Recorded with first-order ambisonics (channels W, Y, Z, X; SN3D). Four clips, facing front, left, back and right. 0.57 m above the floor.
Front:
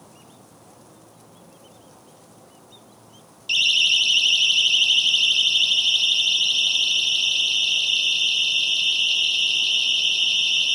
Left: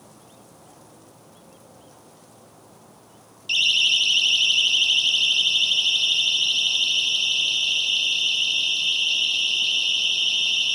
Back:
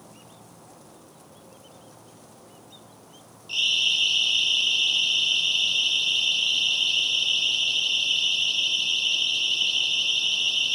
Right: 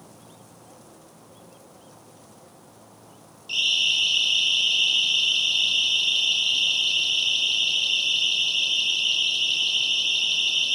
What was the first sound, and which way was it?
A siren, 35° left.